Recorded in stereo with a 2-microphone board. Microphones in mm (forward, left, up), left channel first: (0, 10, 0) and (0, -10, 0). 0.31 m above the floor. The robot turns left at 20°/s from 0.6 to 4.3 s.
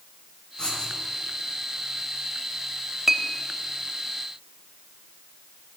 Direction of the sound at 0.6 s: 45° left (ahead or behind).